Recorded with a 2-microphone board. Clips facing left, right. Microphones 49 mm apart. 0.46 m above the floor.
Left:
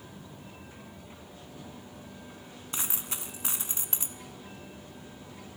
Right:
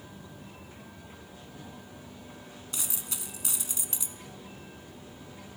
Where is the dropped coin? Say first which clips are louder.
Left 4 dB; 40° left (ahead or behind), 0.5 m.